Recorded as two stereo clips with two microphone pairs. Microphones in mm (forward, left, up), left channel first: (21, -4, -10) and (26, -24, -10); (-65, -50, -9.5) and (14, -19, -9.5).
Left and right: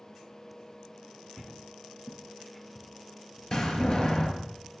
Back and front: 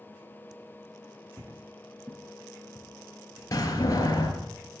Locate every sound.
1.4 s footsteps: 85° left, 1.1 m; by 3.4 s 70° left, 4 m
3.5 s a door slam: 155° left, 4.5 m